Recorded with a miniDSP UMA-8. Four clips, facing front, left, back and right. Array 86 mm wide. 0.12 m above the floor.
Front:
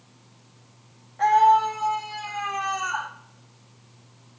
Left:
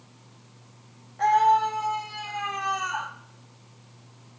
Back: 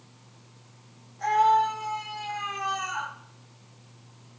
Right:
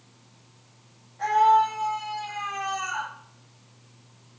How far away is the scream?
About 6 m.